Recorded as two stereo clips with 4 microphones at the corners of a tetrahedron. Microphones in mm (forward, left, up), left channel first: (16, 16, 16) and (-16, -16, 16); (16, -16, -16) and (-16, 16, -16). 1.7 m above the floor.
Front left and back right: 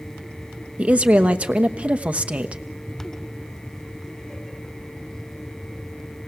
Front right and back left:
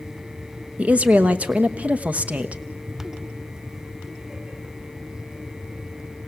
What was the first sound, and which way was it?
A woman speaking, straight behind.